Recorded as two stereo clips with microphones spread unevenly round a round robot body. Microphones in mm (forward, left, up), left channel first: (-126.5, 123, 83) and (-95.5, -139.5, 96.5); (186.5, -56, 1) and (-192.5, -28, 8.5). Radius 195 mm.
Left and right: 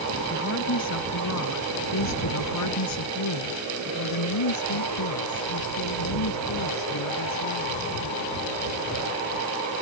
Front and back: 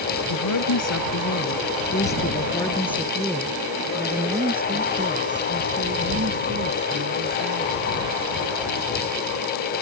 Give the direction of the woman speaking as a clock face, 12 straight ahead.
11 o'clock.